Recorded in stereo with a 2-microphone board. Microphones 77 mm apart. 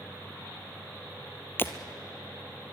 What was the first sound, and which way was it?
Breaking glass, 30° left (ahead or behind).